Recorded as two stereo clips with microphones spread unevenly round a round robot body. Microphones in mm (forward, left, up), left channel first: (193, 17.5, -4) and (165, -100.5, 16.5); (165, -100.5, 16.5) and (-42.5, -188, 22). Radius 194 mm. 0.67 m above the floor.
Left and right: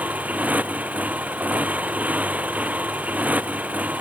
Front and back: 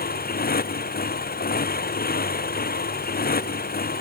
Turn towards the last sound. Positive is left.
turn(degrees=-25)